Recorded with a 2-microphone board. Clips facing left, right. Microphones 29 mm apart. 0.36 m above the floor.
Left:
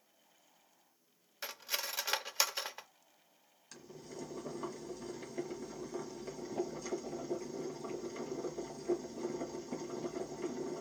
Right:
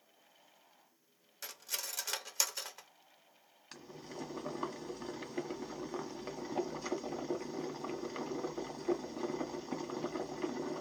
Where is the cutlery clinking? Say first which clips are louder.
Left 4 dB; 25° left (ahead or behind), 0.6 m.